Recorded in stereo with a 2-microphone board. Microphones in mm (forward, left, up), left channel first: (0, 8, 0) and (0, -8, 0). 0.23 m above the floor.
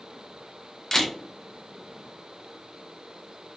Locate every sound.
0.9 s a camera shutter: 20° left (ahead or behind), 0.6 m